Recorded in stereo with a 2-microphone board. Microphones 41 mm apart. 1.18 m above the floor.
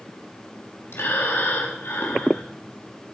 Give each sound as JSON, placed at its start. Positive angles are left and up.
{"t": 0.9, "sound": "breathing", "side_deg": 70, "distance_m": 3.0}